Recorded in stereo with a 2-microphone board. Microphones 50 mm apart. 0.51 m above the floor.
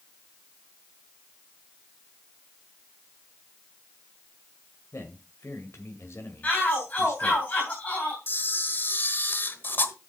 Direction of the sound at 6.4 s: 30° left (ahead or behind).